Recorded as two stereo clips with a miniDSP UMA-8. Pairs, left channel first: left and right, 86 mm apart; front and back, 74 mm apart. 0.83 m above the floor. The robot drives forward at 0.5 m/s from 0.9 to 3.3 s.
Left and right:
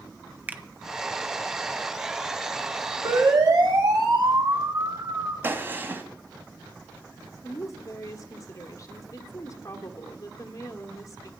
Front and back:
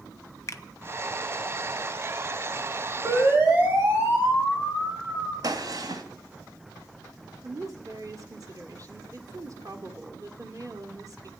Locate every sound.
0.5 s a finger snap: 25° right, 1.0 m
3.0 s a siren: 115° right, 6.5 m
5.4 s a gunshot: 155° right, 2 m
7.4 s a woman speaking: 140° left, 2 m